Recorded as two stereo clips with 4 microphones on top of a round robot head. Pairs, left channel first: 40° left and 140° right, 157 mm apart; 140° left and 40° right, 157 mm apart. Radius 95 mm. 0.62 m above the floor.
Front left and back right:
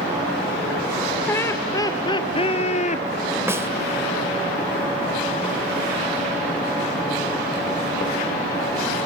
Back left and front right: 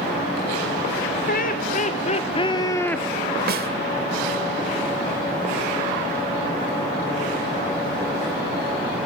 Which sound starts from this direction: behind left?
Laughter, at 1.3 s.